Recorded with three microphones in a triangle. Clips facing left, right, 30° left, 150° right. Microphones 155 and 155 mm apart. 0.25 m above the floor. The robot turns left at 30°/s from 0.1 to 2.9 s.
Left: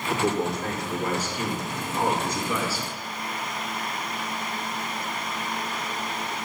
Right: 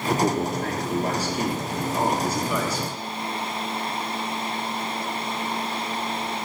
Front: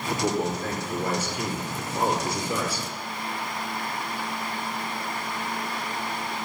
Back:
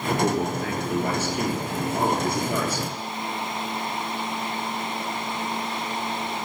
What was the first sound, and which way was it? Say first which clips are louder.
A man speaking: right 2 dB, back 2 dB; 105° right.